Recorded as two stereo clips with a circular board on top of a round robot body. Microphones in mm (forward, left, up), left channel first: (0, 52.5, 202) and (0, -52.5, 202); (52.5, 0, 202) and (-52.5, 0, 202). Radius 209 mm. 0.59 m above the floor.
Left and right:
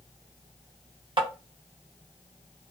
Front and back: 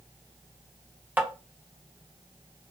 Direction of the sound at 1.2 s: 110° right.